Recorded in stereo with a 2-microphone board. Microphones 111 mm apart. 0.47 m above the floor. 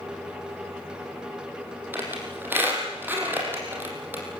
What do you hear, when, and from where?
1.9 s a squeak: 20° right (ahead or behind), 6 m